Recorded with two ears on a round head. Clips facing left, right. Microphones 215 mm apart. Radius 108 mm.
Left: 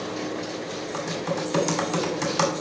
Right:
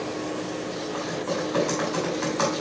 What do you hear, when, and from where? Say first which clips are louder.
0.9 s typing on a keyboard: left 1 dB; 75° left (ahead or behind), 2.5 m